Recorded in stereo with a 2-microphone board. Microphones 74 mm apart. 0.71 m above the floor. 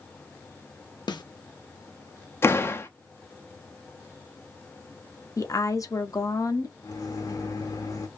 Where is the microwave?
50° left (ahead or behind), 0.7 m.